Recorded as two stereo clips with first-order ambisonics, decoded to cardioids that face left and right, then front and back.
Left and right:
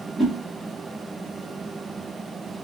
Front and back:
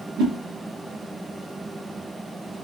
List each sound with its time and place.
0.2 s a whoosh: 175° right, 1.1 m